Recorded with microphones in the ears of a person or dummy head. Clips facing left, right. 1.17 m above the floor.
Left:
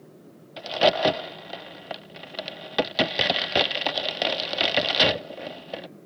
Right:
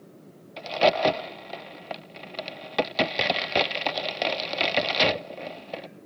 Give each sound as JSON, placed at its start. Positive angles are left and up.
{"t": 0.6, "sound": "a crack", "side_deg": 5}